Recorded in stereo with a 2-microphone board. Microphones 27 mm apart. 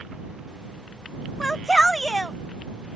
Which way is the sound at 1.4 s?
15° left (ahead or behind).